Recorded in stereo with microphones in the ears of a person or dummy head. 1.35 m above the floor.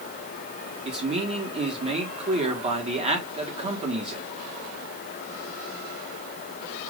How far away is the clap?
No clap in this recording.